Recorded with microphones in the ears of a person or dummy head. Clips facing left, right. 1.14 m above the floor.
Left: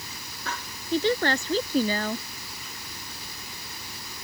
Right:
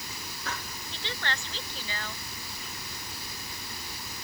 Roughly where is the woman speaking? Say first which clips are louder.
Left 15 dB; left.